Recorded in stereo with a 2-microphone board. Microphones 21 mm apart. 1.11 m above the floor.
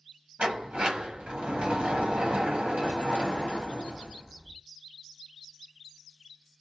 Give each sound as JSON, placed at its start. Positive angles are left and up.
{"t": 0.4, "sound": "a sliding door", "side_deg": -65, "distance_m": 0.9}